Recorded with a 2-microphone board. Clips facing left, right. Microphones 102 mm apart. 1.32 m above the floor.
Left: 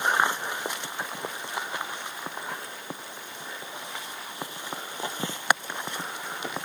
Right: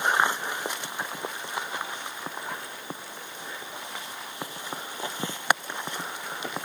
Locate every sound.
Only background noise.